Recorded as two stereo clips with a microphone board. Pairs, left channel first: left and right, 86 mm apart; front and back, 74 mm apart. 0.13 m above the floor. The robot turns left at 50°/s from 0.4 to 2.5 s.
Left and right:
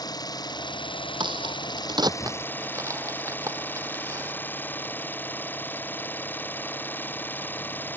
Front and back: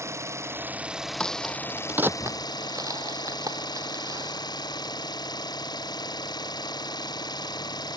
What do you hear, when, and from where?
0.0 s an engine running: 130° left; by 8.0 s 25° left
1.2 s a crack: 75° right; by 4.3 s 140° right